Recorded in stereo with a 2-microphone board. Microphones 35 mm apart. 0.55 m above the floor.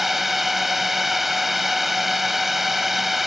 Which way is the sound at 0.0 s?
5° right (ahead or behind).